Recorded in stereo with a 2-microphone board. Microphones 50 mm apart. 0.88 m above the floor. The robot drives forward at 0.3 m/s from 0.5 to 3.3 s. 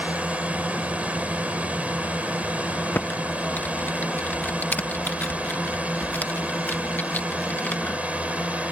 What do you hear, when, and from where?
0.0 s a drone: 25° right (ahead or behind)
2.9 s typing on a keyboard: 40° left (ahead or behind); by 8.0 s 35° left (ahead or behind)